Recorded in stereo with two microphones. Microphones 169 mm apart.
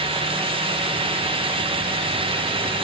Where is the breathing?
No breathing in this recording.